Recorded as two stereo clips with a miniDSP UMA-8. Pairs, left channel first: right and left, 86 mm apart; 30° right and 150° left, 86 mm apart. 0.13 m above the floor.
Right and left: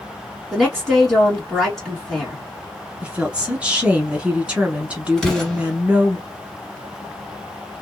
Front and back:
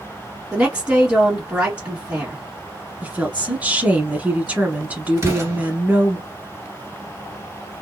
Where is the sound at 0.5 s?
165° right, 1.6 m.